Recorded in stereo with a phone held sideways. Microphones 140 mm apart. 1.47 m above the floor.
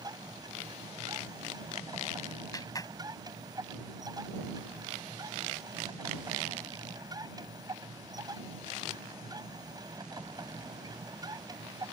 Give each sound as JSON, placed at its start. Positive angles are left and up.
{"t": 0.0, "sound": "a machine running", "side_deg": -30}
{"t": 2.5, "sound": "a clap", "side_deg": 25}